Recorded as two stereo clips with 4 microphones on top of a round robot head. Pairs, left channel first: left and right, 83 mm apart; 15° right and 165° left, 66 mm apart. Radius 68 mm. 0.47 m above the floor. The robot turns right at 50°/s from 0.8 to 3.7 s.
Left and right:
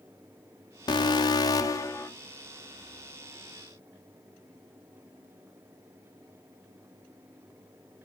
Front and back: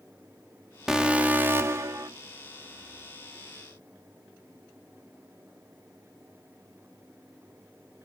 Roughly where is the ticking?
No ticking in this recording.